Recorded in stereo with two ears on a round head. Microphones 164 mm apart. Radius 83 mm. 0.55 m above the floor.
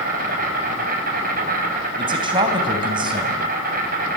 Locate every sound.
0.0 s an insect: 50° right (ahead or behind), 5.5 m
2.0 s a man speaking: 25° right (ahead or behind), 4 m